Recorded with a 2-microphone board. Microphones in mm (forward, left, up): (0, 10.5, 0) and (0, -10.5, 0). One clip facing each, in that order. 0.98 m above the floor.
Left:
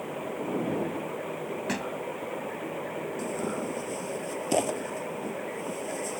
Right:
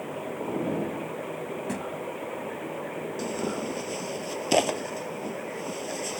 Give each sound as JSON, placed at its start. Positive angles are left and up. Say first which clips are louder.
{"t": 1.7, "sound": "a thud", "louder": "left 1 dB", "side_deg": 45}
{"t": 3.2, "sound": "tearing paper", "louder": "right 2 dB", "side_deg": -45}